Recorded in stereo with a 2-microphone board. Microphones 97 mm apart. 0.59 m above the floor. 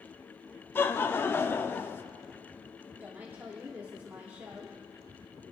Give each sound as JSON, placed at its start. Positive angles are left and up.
{"t": 0.8, "sound": "laughter", "side_deg": 25, "distance_m": 0.7}
{"t": 3.0, "sound": "a woman speaking", "side_deg": -20, "distance_m": 1.3}